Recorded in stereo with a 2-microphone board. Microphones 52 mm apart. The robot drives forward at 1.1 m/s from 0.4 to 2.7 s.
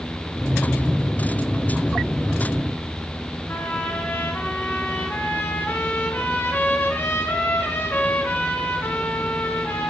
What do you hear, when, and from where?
3.5 s a trumpet: 45° left (ahead or behind), 1.2 m